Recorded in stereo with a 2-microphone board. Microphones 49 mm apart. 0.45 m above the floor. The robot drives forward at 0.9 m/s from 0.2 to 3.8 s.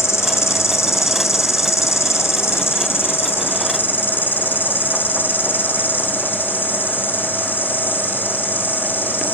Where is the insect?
65° left (ahead or behind), 2.5 m; by 9.3 s 40° left (ahead or behind), 3 m.